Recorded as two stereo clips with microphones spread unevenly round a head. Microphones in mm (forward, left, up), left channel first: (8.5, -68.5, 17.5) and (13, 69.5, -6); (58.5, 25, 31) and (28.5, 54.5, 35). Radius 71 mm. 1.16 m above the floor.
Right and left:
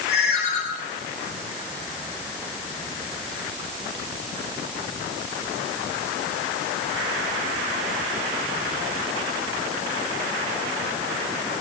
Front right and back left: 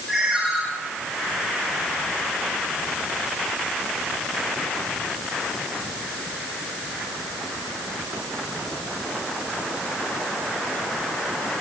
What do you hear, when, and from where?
0.1 s a ringtone: 135° right, 5 m